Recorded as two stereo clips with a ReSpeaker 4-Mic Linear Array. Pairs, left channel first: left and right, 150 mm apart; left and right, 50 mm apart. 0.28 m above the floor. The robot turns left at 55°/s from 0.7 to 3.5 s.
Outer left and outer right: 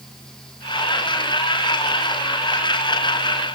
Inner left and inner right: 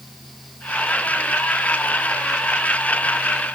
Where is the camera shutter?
No camera shutter in this recording.